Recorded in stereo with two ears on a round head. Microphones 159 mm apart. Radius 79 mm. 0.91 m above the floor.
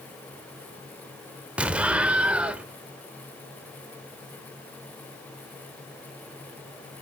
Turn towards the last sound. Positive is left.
turn(degrees=-5)  # may be behind; listen again after turning